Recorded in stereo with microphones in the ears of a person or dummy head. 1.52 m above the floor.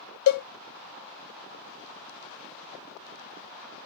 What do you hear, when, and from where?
0.3 s a cowbell: 60° left (ahead or behind), 0.6 m